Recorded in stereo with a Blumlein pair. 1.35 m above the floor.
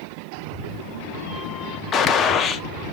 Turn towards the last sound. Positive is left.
turn(degrees=25)